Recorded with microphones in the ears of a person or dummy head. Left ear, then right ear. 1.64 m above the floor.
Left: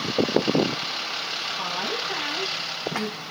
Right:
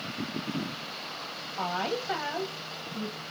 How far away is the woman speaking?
About 0.6 m.